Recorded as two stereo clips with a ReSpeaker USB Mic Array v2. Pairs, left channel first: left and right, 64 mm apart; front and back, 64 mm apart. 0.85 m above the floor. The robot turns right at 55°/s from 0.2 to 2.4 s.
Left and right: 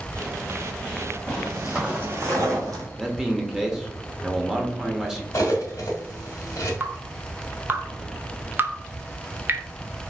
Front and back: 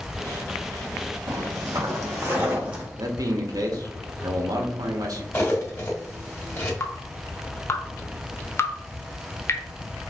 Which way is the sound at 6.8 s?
40° right.